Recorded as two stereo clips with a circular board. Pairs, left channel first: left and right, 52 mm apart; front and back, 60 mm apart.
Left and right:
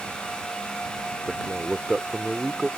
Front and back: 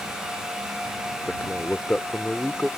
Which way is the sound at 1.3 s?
15° right.